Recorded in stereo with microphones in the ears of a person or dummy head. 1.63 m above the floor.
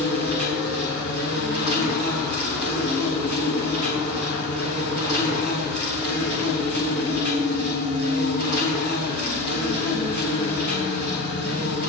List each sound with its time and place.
0.0 s an insect: 70° left (ahead or behind), 6.5 m